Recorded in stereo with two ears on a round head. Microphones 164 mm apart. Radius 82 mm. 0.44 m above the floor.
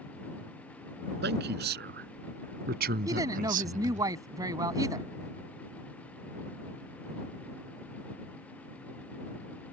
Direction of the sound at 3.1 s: 20° right (ahead or behind).